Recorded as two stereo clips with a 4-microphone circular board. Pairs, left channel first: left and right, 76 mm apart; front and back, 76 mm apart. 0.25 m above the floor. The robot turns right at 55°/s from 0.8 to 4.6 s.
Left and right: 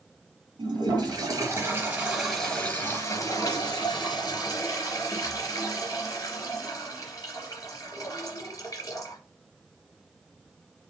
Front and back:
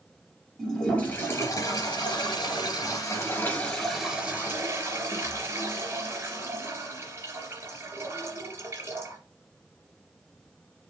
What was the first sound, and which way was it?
A toilet flushing, 80° right.